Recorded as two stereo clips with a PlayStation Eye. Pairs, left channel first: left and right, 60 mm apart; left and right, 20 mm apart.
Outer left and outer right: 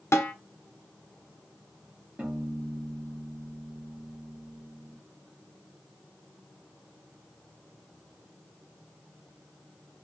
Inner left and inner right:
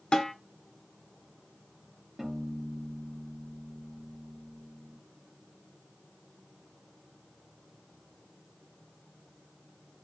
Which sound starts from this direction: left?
A snare drum, at 0.1 s.